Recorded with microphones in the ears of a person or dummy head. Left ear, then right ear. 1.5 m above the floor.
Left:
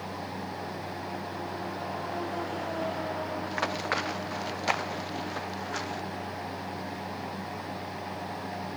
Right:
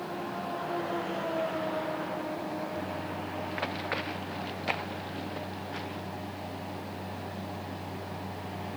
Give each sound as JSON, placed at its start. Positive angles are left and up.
{"t": 3.5, "sound": "running footsteps", "side_deg": 40}